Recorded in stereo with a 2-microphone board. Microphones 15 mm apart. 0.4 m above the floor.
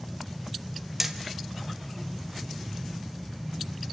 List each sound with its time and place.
1.0 s hammering: 15° right (ahead or behind), 1.5 m